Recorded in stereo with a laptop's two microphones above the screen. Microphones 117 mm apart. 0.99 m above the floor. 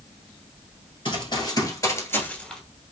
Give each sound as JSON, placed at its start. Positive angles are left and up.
{"t": 1.1, "sound": "running footsteps", "side_deg": 45, "distance_m": 1.4}